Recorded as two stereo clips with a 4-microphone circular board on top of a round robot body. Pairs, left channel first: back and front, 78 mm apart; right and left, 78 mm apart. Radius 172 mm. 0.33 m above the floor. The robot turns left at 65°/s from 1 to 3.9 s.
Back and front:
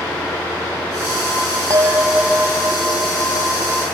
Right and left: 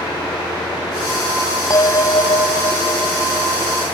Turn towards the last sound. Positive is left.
turn(degrees=170)